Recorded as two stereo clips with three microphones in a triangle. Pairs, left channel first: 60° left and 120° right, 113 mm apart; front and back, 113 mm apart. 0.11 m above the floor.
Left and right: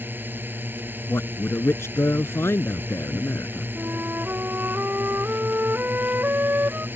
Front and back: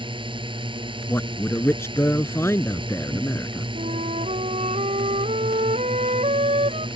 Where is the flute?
165° left.